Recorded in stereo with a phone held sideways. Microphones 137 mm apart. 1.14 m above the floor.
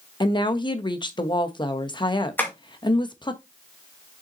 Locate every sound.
0.2 s a woman speaking: 35° left (ahead or behind), 1.0 m
2.4 s tapping: 15° left (ahead or behind), 2 m